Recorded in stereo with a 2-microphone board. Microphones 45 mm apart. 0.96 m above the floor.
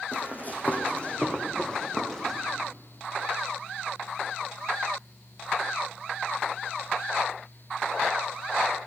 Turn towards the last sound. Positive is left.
turn(degrees=5)  # may be behind; listen again after turning